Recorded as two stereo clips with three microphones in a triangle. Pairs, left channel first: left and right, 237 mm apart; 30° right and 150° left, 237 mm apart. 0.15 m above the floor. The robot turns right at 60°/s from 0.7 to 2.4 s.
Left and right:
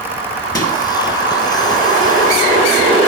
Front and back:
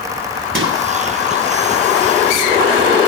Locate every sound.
0.6 s a microwave: 160° left, 1.9 m; by 0.8 s 170° left, 1.9 m